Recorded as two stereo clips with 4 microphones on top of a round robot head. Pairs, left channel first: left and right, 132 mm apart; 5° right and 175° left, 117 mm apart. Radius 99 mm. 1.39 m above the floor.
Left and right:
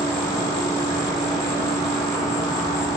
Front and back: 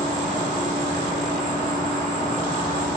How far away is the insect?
About 0.8 m.